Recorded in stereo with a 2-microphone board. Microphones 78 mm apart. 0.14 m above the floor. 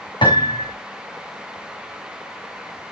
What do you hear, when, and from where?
0.2 s a piano: 85° left, 5.5 m